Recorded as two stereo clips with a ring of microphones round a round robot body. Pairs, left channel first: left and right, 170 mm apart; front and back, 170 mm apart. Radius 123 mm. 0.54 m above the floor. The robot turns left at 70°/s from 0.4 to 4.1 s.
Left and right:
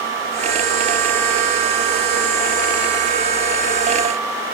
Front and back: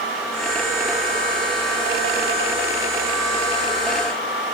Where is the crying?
No crying in this recording.